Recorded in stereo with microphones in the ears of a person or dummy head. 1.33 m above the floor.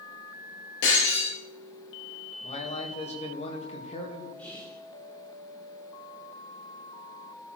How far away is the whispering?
About 0.9 m.